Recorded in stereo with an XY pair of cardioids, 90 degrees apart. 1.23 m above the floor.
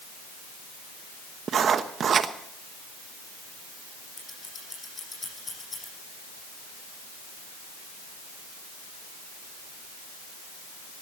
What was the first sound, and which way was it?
Writing, 60° right.